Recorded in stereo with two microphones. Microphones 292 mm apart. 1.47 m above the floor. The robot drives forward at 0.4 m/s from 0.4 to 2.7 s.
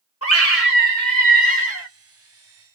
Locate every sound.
0.2 s a scream: 50° left (ahead or behind), 2 m; by 1.9 s 40° left (ahead or behind), 2.5 m